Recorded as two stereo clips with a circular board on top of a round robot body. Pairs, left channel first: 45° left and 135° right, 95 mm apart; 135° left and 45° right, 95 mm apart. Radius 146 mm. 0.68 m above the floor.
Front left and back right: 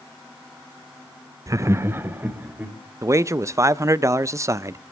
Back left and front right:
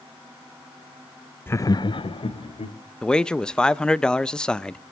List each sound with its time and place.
1.5 s laughter: 165° right, 0.6 m; by 2.8 s 150° left, 2.0 m
3.0 s a man speaking: 150° right, 0.5 m